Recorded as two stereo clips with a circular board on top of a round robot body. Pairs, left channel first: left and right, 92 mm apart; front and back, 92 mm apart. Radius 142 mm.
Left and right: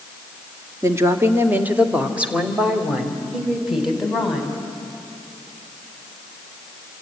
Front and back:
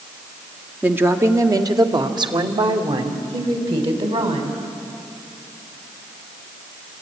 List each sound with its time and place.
0.8 s a woman speaking: 120° right, 1.6 m; by 4.6 s straight behind, 4 m